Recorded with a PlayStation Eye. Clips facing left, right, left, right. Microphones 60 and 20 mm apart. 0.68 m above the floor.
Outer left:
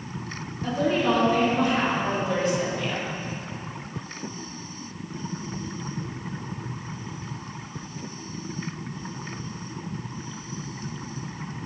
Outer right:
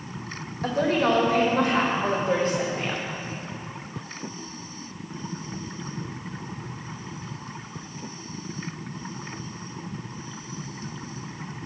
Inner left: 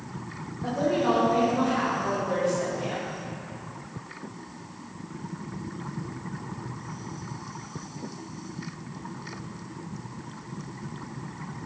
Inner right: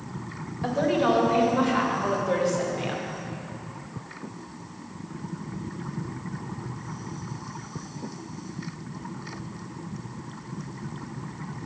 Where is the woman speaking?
65° right (ahead or behind), 3 m; by 3.1 s 35° right (ahead or behind), 2 m.